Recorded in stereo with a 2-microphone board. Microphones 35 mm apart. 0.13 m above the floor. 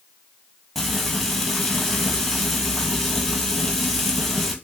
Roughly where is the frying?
Centre.